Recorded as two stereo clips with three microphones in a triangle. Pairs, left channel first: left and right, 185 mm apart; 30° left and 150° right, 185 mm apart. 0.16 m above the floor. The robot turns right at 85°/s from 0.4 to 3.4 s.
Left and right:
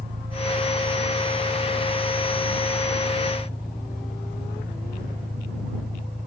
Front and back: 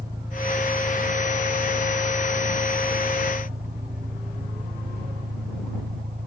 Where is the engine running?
75° right; by 6.3 s straight behind.